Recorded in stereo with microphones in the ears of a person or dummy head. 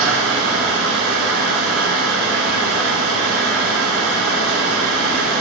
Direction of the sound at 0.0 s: 80° right.